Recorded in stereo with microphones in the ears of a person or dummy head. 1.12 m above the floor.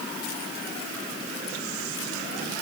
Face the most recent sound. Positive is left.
No sound to turn to.